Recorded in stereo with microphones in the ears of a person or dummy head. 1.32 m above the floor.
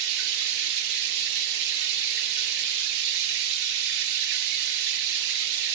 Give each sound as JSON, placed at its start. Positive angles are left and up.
{"t": 0.0, "sound": "running water", "side_deg": -65, "distance_m": 1.0}